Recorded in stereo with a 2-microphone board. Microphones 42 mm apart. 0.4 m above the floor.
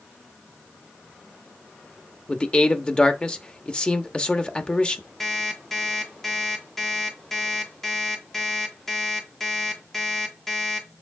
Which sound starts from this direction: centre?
An alarm clock, at 5.2 s.